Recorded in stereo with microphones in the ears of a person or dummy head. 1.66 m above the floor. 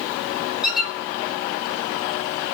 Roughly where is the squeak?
Centre.